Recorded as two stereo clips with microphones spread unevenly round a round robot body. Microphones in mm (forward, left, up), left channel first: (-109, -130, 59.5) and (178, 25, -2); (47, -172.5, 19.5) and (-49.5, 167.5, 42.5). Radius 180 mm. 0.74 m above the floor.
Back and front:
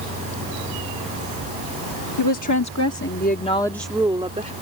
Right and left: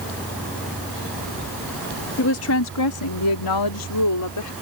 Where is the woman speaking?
125° right; by 4.5 s 35° right.